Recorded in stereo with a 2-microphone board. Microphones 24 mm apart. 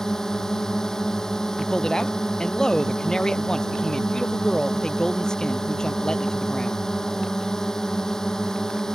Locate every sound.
0.0 s a drone: 25° left (ahead or behind)
1.6 s a man speaking: 30° left (ahead or behind)